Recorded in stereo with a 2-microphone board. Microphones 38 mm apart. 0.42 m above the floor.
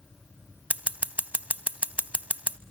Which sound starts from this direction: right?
Scissors, at 0.7 s.